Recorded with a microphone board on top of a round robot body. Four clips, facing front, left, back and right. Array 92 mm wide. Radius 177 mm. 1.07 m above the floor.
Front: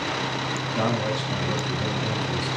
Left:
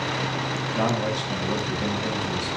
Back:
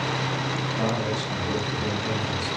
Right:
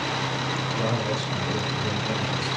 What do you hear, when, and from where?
0.7 s a man speaking: 75° left, 9.5 m